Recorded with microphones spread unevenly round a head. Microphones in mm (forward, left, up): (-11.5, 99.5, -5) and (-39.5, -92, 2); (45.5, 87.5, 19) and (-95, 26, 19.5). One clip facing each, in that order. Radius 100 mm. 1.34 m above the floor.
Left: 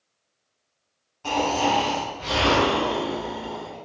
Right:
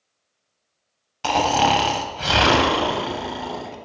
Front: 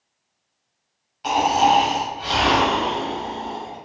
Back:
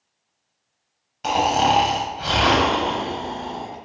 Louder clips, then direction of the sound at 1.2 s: Right 3 dB, front 1 dB; 105° right.